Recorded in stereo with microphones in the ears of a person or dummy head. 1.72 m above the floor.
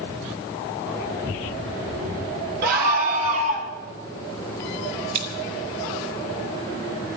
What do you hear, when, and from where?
2.6 s a scream: 55° right (ahead or behind), 1.6 m; by 3.7 s 35° right (ahead or behind), 1.9 m
5.1 s scissors: 55° right (ahead or behind), 4.5 m